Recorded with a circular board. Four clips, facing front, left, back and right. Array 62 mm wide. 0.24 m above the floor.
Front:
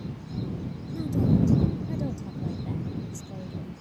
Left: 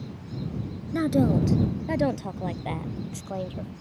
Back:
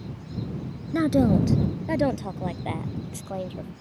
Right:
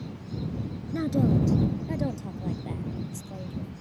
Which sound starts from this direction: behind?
A woman speaking, at 0.9 s.